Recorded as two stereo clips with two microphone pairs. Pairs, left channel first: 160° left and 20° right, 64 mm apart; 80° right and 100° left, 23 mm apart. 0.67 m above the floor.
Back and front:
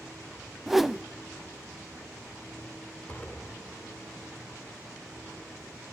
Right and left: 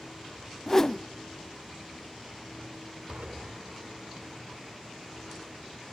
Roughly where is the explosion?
Left.